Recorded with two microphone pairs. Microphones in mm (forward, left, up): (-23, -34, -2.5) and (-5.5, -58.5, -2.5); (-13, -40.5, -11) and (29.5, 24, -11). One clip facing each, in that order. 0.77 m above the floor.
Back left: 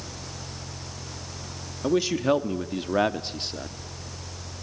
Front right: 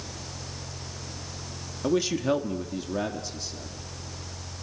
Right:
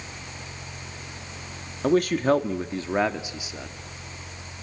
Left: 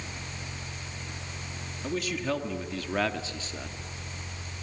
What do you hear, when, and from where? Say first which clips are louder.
1.8 s a man speaking: back left 2 dB, right 11 dB; 150° right, 1.0 m; by 3.8 s 155° left, 1.3 m